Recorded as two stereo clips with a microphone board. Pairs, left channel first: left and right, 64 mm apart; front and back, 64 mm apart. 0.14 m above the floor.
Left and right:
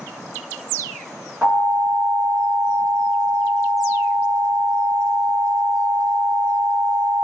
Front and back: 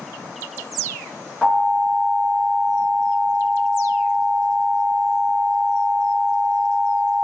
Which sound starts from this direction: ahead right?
An alarm, at 1.4 s.